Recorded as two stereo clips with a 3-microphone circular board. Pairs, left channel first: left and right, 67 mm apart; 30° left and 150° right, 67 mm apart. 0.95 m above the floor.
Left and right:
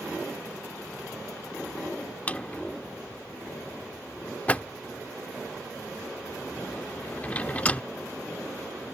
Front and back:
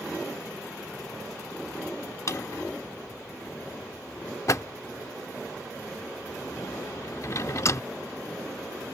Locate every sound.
2.3 s a drawer: 30° left